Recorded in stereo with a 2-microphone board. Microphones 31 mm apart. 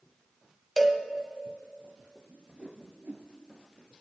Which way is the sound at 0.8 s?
10° left (ahead or behind).